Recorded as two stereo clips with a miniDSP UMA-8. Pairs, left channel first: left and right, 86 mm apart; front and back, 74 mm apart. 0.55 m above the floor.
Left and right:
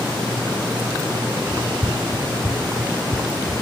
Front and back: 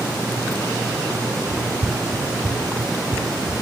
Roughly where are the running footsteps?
Behind.